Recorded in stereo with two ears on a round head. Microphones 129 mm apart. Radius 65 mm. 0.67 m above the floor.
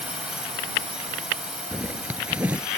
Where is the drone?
5° right (ahead or behind).